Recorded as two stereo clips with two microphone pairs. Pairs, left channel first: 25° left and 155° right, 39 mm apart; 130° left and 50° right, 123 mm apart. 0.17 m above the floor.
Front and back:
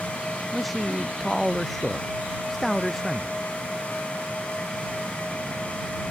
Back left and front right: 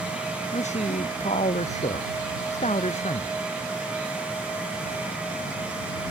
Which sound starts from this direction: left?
A man speaking, at 0.5 s.